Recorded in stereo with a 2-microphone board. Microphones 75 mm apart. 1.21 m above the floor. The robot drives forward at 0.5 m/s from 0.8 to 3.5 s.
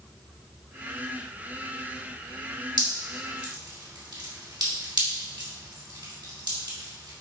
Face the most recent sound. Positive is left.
turn(degrees=-75)  # may be behind; listen again after turning